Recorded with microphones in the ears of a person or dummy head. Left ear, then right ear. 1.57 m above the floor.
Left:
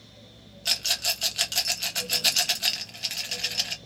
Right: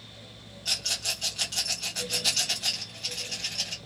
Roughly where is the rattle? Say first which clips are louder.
Left 3 dB; left.